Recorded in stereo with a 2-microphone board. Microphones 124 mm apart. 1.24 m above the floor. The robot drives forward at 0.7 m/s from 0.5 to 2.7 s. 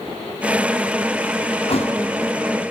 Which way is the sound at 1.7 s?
50° left (ahead or behind).